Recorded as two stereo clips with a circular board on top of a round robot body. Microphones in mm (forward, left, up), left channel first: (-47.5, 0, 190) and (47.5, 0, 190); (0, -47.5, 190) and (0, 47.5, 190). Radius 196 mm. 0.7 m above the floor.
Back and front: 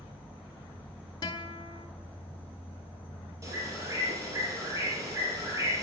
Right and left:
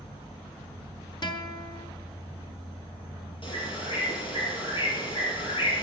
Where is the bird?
60° right, 5 m.